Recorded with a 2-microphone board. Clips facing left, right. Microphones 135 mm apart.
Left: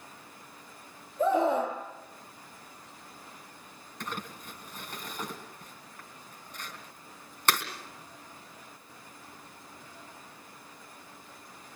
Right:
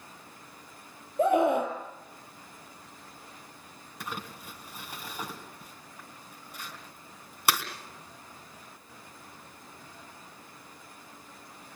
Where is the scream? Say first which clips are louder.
Right 2 dB; 75° right (ahead or behind), 6.5 m.